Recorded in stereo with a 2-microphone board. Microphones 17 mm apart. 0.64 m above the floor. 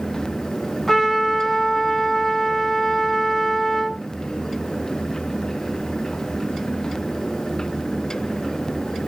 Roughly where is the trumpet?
Centre.